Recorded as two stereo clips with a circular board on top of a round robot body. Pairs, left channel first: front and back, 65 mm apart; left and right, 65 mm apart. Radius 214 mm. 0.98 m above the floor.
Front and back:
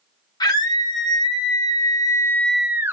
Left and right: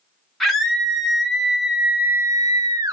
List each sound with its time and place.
0.4 s a scream: 5° left, 2.5 m; by 2.9 s 125° right, 0.8 m